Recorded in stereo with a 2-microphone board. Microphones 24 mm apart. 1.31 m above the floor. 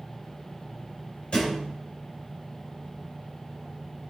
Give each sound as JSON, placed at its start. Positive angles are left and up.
{"t": 1.3, "sound": "a thud", "side_deg": 45, "distance_m": 3.0}